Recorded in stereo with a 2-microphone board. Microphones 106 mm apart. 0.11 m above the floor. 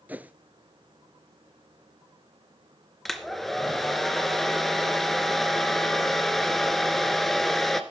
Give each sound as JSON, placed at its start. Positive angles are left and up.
{"t": 0.1, "sound": "a whoosh", "side_deg": -15, "distance_m": 0.7}
{"t": 3.0, "sound": "a hair dryer", "side_deg": 0, "distance_m": 1.0}